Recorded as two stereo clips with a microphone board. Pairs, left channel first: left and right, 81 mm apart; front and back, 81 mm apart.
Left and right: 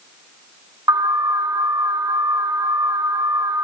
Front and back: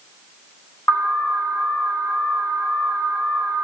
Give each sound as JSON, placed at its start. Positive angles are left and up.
{"t": 0.9, "sound": "an alarm", "azimuth_deg": -55, "distance_m": 8.0}